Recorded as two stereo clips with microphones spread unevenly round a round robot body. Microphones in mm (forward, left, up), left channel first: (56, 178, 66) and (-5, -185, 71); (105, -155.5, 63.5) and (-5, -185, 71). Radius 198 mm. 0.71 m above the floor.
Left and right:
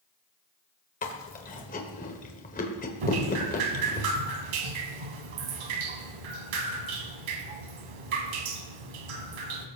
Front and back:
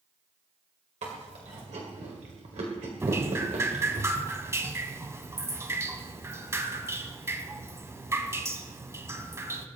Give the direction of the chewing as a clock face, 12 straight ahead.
7 o'clock.